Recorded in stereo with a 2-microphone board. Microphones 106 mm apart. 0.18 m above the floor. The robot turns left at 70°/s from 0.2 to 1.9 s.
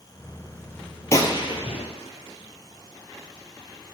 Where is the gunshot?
30° left (ahead or behind), 0.9 m; by 4.0 s 80° left, 0.9 m.